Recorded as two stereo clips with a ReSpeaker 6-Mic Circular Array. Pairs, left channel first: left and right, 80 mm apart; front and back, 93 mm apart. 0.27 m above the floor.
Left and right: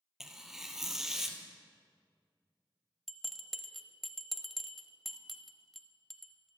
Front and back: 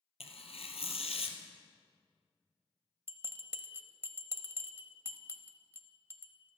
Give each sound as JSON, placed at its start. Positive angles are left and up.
{"t": 0.2, "sound": "tearing paper", "azimuth_deg": -5, "distance_m": 1.5}
{"t": 3.1, "sound": "a bell", "azimuth_deg": 180, "distance_m": 0.8}